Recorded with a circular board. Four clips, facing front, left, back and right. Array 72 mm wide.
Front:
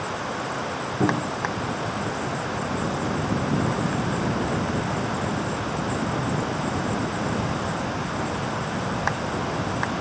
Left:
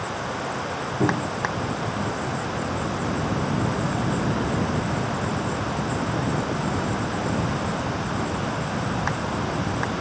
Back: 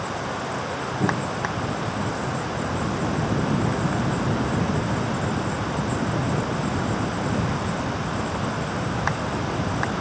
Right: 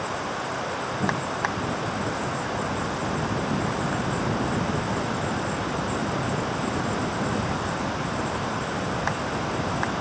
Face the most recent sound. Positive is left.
turn(degrees=35)